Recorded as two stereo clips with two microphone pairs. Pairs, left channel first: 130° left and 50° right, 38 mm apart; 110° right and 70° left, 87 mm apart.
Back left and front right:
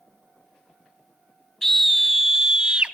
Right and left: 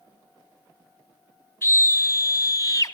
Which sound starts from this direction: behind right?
A scream, at 1.6 s.